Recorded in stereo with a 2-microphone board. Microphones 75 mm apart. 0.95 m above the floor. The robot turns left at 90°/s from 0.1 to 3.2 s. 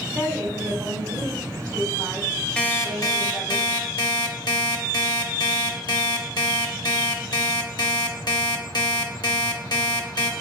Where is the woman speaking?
Straight ahead, 3 m; by 3.6 s 90° left, 3 m.